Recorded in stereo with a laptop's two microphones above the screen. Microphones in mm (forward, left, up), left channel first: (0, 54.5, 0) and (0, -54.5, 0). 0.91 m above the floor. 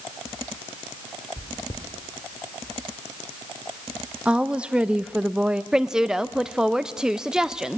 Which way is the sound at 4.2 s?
10° right (ahead or behind).